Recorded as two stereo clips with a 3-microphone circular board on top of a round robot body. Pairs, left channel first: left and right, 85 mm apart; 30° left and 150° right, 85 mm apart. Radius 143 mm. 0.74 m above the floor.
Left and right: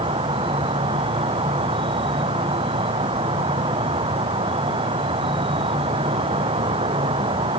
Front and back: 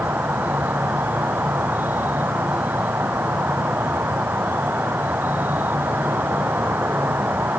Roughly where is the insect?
Right.